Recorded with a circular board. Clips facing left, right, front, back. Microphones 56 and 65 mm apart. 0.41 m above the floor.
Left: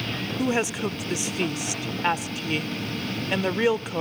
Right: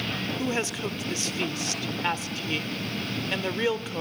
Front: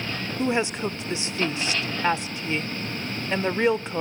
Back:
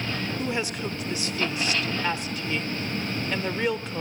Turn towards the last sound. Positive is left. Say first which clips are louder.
# left 6 dB, front 9 dB
turn(degrees=35)